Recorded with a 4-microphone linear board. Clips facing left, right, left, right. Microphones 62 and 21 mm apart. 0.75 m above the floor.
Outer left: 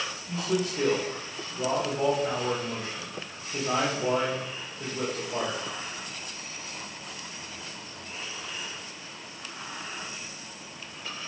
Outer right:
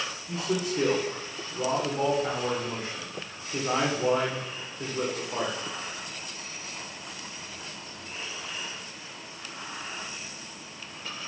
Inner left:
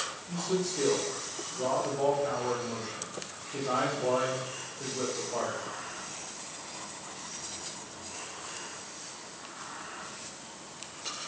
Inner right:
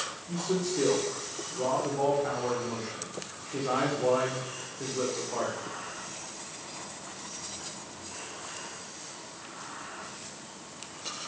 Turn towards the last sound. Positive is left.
turn(degrees=-30)  # may be behind; listen again after turning